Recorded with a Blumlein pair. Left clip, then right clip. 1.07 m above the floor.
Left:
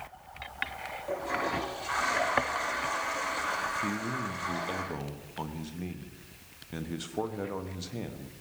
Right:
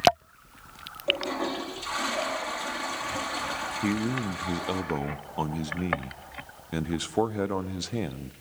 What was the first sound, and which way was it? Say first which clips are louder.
A toilet flushing: right 4 dB; 30° right.